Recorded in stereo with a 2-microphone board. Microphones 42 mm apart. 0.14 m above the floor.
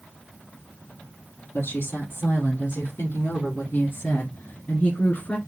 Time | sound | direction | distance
1.5 | a woman speaking | 70° left (ahead or behind) | 3.5 m